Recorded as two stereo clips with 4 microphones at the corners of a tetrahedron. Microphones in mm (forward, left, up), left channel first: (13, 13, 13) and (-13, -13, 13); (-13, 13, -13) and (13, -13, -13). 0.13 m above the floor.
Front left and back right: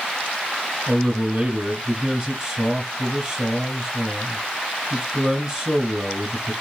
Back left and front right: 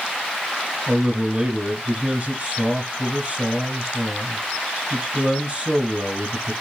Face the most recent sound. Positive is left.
turn(degrees=-85)